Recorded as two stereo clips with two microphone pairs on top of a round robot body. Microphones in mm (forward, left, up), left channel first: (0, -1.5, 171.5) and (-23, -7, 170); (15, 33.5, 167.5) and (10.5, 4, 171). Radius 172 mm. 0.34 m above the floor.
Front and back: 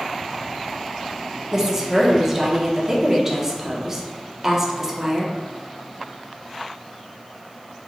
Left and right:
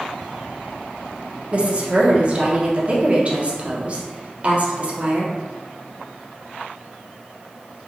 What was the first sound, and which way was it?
A woman speaking, 120° right.